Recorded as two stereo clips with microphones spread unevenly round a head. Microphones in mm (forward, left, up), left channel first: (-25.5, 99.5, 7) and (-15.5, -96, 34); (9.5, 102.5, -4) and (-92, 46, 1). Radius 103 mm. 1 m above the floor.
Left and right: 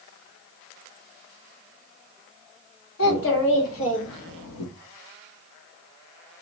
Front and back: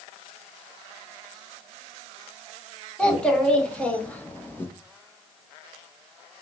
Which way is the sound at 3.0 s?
110° left.